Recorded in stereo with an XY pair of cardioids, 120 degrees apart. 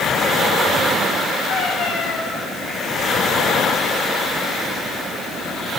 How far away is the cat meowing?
About 5.5 m.